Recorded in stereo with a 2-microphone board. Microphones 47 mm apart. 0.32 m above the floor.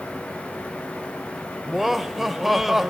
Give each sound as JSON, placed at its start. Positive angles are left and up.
{"t": 1.7, "sound": "laughter", "side_deg": -5, "distance_m": 0.9}